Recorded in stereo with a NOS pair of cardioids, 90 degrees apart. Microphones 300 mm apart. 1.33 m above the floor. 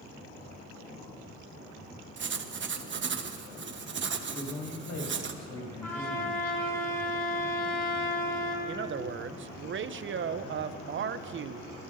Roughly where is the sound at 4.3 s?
Ahead left.